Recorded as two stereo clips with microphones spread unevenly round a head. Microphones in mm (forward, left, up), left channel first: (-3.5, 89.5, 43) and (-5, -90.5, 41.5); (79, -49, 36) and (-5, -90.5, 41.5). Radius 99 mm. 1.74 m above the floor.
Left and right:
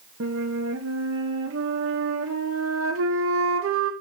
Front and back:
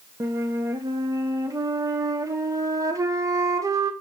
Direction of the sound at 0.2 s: 105° right.